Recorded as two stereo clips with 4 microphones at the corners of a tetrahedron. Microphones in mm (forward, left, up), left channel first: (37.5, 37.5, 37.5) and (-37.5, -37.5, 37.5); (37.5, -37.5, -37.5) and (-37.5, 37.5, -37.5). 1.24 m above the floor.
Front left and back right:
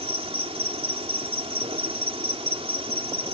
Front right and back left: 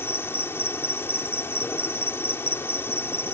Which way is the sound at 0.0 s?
115° right.